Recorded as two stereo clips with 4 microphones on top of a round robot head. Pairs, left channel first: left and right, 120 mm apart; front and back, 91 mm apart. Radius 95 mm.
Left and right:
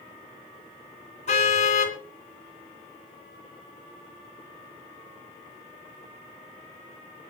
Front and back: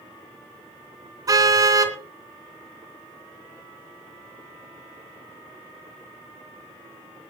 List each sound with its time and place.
1.3 s a car horn: 130° left, 3 m